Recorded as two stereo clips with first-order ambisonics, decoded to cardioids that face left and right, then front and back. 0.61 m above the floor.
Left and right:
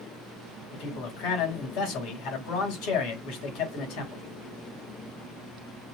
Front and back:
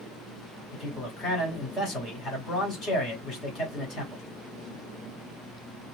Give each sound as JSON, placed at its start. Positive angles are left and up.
{"t": 0.7, "sound": "a man speaking", "azimuth_deg": 70, "distance_m": 2.5}